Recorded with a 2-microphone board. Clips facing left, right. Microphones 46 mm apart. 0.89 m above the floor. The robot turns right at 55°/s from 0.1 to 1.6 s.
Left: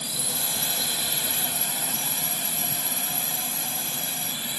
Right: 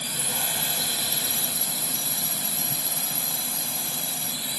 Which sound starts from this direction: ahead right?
A drone, at 0.0 s.